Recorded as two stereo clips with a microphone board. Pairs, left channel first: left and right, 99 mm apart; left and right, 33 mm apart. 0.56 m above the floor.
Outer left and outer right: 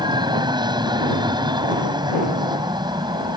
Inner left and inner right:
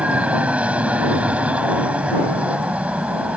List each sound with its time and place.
0.0 s an aircraft: 45° right (ahead or behind)